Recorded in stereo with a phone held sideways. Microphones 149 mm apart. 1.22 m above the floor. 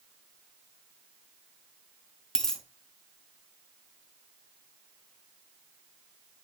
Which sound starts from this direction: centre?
A dropped coin, at 2.4 s.